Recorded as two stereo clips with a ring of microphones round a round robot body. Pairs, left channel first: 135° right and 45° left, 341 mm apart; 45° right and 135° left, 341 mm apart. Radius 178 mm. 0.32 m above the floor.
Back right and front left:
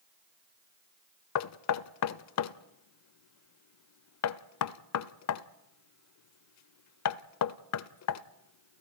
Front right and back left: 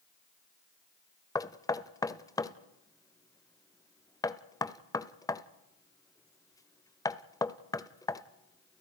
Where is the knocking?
120° right, 0.7 m.